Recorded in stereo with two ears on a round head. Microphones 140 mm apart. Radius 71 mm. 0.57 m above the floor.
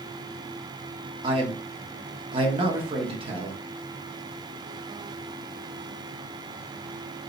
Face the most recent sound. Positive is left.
turn(degrees=-35)  # may be behind; listen again after turning